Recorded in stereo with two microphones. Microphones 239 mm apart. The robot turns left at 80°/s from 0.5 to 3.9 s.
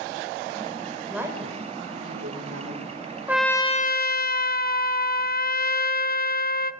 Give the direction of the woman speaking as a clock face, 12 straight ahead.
12 o'clock.